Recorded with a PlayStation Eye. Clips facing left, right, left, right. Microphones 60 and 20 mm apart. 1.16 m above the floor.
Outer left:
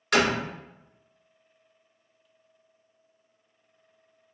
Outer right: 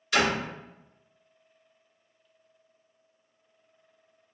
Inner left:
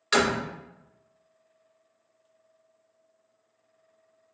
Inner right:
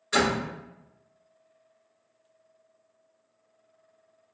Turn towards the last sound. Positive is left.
turn(degrees=60)  # may be behind; listen again after turning